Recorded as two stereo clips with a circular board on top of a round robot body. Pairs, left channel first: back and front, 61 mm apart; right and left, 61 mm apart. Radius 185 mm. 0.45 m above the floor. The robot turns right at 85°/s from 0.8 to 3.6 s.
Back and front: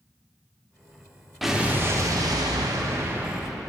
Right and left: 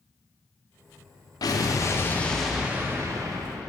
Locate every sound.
1.4 s an explosion: 90° right, 1.0 m; by 3.7 s 100° left, 1.0 m